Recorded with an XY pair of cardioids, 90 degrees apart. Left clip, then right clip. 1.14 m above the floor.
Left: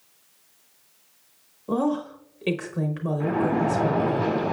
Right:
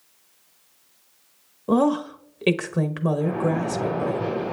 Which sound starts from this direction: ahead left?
A splash, at 3.2 s.